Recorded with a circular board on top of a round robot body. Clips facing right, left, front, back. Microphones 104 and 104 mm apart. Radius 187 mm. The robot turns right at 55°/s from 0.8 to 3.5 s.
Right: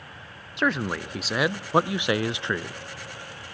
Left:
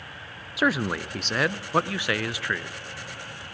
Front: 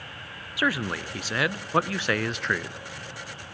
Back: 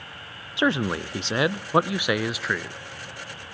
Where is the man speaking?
170° left, 0.6 m; by 2.8 s 80° right, 0.6 m.